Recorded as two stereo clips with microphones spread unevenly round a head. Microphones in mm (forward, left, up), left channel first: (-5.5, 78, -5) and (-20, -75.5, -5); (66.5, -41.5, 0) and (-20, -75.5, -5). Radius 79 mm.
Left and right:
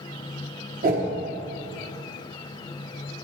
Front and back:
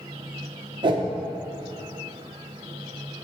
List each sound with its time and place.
0.8 s a whoosh: 125° right, 1.3 m